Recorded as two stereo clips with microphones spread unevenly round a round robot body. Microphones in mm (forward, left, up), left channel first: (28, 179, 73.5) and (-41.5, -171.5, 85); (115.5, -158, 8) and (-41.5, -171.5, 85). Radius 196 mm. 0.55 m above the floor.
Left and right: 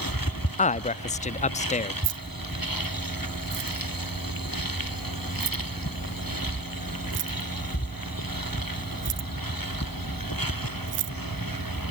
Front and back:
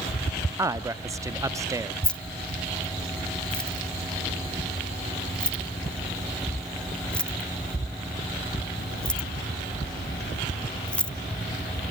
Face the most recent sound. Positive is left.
turn(degrees=-50)